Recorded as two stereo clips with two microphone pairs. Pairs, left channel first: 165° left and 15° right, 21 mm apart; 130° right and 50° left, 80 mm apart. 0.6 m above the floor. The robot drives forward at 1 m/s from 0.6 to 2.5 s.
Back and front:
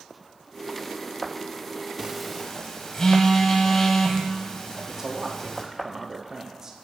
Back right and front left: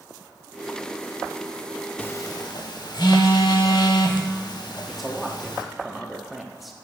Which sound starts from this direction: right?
A phone buzzing, at 2.0 s.